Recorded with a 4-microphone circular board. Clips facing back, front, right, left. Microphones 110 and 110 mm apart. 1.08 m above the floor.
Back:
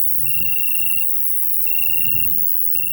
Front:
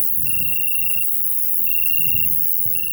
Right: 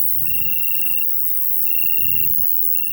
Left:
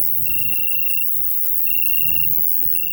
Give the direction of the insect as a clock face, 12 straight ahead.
10 o'clock.